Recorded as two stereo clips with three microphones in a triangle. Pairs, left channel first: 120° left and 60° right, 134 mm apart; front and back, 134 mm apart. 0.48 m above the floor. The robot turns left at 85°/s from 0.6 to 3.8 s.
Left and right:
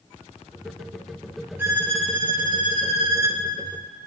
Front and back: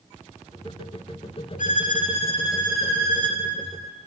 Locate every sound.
1.6 s a violin: 15° left, 0.6 m; by 3.4 s 140° right, 0.6 m